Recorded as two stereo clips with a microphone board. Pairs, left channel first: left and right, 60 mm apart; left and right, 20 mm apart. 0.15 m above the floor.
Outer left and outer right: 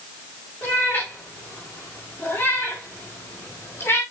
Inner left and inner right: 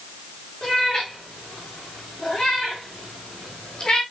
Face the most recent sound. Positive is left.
turn(degrees=45)  # may be behind; listen again after turning